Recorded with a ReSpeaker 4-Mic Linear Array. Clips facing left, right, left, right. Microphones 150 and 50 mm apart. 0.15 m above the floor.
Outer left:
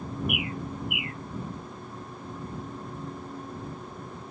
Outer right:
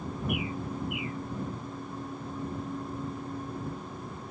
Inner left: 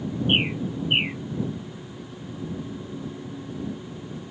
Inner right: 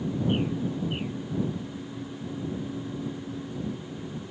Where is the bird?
75° left (ahead or behind).